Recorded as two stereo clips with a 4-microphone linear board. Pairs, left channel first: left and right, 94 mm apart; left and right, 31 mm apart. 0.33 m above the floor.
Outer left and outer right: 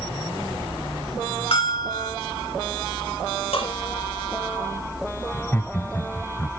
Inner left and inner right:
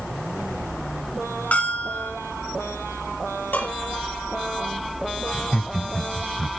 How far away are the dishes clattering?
About 5 m.